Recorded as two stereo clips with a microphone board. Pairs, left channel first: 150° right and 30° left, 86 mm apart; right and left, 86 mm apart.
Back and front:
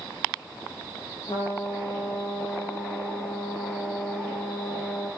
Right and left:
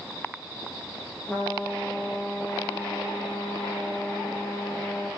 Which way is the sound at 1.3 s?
160° right.